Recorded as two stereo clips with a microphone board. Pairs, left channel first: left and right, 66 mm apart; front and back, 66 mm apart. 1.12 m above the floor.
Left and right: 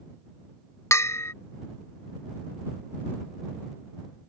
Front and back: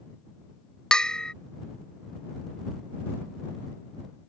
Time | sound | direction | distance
0.9 | a bell | 75° left | ?